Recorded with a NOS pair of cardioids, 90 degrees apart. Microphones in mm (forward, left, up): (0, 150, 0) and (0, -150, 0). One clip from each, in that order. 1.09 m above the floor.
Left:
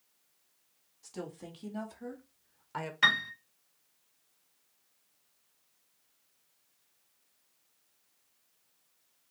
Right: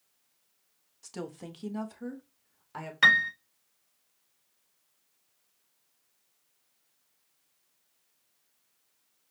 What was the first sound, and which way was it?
A woman speaking, 40° right.